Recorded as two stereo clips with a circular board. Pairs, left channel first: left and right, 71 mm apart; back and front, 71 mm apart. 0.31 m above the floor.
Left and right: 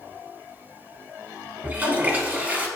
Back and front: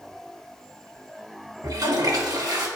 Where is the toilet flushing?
25° right, 0.8 m.